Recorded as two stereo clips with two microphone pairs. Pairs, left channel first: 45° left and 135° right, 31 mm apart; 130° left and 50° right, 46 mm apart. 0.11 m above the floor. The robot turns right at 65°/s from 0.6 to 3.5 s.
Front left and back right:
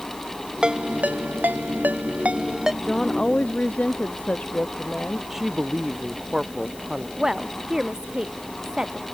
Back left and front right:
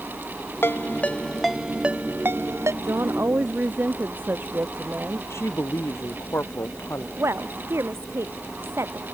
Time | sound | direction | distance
0.6 | a ringtone | 165° left | ?
2.8 | a woman speaking | 50° right | ?
5.3 | a woman speaking | 145° left | ?
7.2 | a woman speaking | 65° right | ?